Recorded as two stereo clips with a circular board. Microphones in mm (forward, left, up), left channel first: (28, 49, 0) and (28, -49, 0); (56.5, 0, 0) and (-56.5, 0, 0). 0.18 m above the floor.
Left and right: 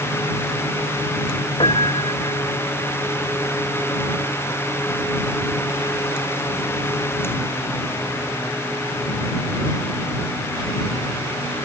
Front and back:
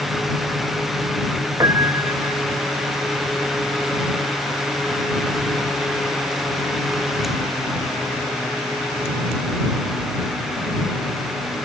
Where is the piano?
120° left.